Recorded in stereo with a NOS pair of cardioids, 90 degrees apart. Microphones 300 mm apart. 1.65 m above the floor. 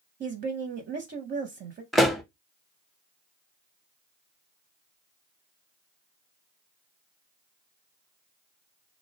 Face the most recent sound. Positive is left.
turn(degrees=0)